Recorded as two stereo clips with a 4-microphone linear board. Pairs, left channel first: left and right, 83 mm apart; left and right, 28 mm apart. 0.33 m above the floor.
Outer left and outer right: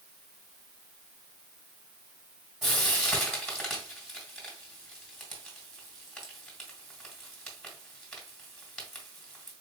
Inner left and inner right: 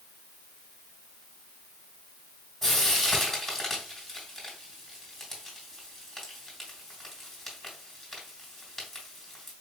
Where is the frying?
Centre (ahead or behind), 2.0 m.